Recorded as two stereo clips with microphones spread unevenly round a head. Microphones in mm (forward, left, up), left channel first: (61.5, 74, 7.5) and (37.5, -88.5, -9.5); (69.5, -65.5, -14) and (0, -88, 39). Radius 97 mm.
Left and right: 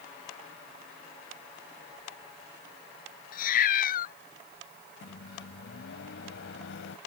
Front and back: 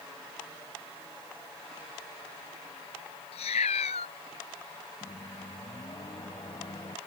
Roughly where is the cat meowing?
Left.